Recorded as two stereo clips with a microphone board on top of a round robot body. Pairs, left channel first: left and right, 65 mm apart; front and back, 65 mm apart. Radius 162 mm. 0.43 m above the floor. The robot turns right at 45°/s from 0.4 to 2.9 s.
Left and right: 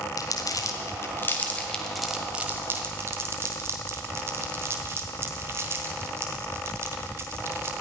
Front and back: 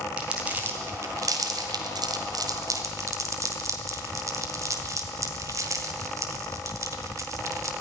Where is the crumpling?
110° left, 1.7 m; by 7.7 s 140° right, 1.7 m.